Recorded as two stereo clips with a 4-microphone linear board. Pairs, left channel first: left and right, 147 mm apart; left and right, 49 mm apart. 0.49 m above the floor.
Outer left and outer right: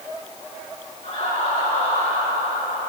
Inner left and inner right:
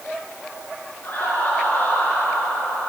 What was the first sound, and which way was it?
Laughter, 40° left (ahead or behind).